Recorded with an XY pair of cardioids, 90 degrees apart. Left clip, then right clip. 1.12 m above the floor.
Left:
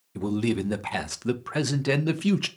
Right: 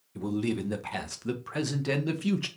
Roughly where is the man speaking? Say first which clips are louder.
Left 4 dB; ahead left.